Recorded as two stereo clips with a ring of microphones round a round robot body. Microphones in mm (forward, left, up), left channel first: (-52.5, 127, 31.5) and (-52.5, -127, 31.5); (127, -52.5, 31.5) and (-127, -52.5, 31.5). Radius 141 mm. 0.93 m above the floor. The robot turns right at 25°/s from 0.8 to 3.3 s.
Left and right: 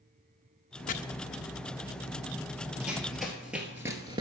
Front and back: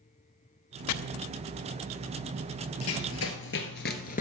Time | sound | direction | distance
0.9 | chopping | 25° left | 0.5 m
2.8 | running footsteps | 5° right | 1.4 m